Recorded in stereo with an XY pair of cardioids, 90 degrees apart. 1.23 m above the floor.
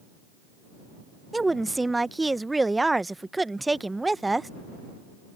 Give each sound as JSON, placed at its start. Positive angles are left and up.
{"t": 1.3, "sound": "a woman speaking", "azimuth_deg": -15}